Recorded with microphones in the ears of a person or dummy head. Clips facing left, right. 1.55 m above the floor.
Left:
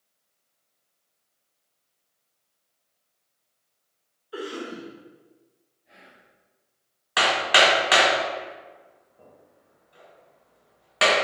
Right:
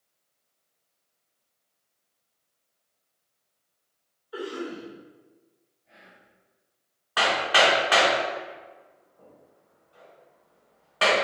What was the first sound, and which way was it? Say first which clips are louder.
A cough: even; 35° left (ahead or behind).